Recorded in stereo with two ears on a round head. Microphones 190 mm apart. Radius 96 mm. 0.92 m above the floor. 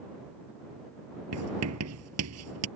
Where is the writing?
80° right.